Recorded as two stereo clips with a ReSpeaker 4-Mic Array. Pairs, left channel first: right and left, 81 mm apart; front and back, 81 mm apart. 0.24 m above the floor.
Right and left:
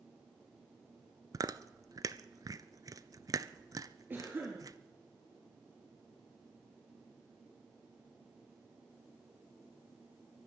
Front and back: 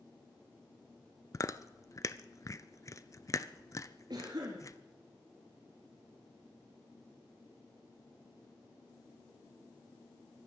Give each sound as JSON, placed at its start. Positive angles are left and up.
{"t": 1.3, "sound": "chewing", "azimuth_deg": 45, "distance_m": 0.6}
{"t": 4.1, "sound": "a cough", "azimuth_deg": 155, "distance_m": 4.5}